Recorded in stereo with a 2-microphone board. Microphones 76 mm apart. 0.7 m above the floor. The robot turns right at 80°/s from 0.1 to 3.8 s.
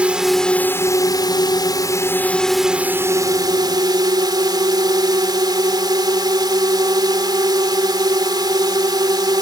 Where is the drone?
15° right; by 9.4 s 80° right.